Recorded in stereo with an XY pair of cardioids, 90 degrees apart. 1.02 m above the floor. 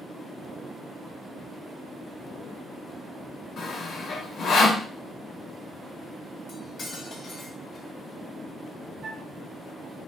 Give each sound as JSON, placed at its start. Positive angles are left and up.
{"t": 3.6, "sound": "sawing", "azimuth_deg": 65, "distance_m": 1.0}
{"t": 6.5, "sound": "cutlery clinking", "azimuth_deg": 50, "distance_m": 0.9}
{"t": 9.0, "sound": "a flute", "azimuth_deg": -50, "distance_m": 1.0}